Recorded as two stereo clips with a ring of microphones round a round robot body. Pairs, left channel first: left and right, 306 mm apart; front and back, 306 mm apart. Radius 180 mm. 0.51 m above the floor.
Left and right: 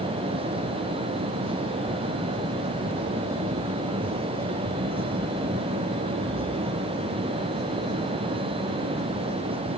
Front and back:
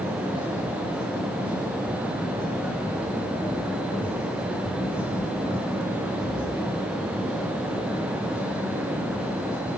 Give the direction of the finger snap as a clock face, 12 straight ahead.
I don't hear a finger snap.